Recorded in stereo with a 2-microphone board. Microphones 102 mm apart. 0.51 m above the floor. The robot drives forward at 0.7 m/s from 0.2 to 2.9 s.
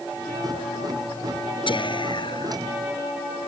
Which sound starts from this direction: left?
Whispering, at 1.7 s.